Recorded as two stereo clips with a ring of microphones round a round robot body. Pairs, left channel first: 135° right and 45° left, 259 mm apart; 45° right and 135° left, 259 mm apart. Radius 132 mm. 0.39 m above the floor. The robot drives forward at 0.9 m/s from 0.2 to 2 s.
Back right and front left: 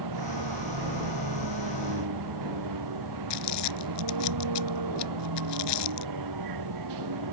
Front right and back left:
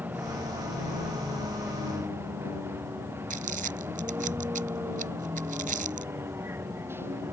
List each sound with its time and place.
0.0 s a vehicle: 50° left; by 7.3 s 55° left
3.3 s crumpling: 165° right